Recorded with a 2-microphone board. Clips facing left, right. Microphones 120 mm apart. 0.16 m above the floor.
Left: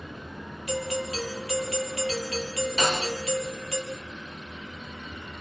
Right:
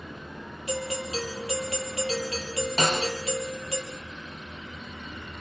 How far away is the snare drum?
About 3.5 m.